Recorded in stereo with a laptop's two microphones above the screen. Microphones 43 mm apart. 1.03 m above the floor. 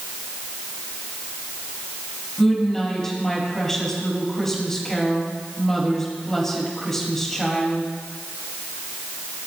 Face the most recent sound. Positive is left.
turn(degrees=10)  # may be behind; listen again after turning